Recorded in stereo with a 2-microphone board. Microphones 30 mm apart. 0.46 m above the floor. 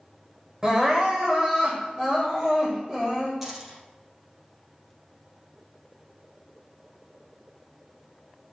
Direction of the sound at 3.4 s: 10° right (ahead or behind).